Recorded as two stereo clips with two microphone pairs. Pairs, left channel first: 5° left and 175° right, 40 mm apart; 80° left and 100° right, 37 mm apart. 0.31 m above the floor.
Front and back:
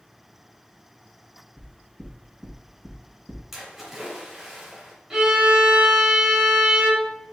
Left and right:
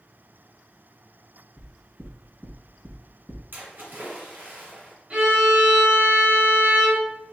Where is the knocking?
125° left, 1.4 m.